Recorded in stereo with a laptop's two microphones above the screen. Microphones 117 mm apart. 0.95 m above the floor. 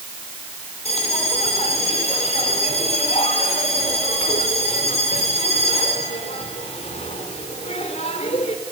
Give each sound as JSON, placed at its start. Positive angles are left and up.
{"t": 0.8, "sound": "a bell", "side_deg": 55, "distance_m": 2.5}